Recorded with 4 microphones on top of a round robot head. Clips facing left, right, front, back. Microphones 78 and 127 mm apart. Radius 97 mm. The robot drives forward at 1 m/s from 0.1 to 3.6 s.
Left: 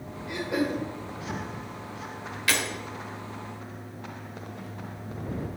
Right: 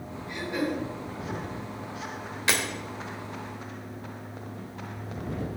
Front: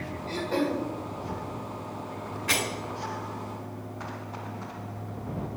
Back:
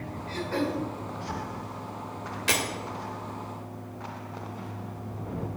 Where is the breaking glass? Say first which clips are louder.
Even, back 1 dB; 150° right, 3 m.